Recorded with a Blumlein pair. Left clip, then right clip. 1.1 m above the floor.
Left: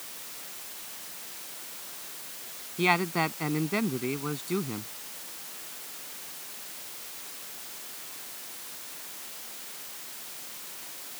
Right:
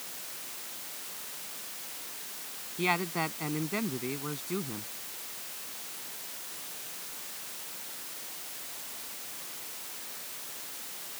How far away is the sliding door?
No sliding door in this recording.